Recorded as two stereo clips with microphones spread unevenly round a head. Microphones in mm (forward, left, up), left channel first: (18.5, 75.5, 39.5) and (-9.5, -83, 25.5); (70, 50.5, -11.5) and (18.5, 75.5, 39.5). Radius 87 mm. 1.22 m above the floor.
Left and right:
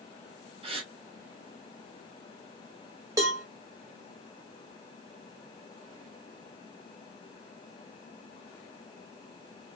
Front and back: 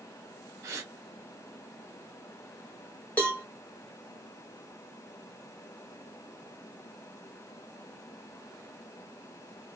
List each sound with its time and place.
0.6 s a gasp: 125° right, 0.7 m
3.2 s a cowbell: 165° right, 0.5 m